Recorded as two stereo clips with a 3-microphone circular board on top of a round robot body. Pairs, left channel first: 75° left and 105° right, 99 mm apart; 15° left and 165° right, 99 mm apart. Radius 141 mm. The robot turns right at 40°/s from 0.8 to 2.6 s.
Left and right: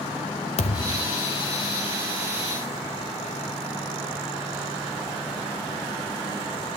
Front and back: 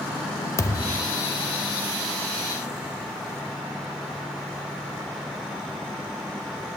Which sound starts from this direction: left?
A thud, at 0.6 s.